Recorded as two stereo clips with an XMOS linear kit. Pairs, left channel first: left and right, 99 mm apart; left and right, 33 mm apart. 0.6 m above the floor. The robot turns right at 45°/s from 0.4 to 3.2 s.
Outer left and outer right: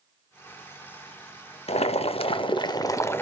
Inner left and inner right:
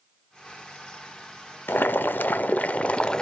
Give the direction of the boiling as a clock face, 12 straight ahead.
9 o'clock.